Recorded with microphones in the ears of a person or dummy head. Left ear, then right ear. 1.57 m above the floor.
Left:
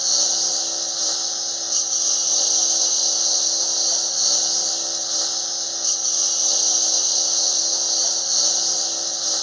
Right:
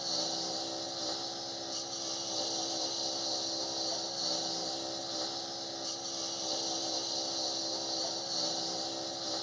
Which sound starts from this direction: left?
A lawn mower, at 0.0 s.